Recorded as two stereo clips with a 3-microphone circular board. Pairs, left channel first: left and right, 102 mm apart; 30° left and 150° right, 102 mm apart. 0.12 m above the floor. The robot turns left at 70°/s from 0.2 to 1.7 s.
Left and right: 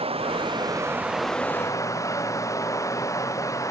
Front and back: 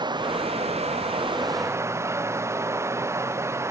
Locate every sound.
0.0 s running water: 105° right; by 3.7 s 150° left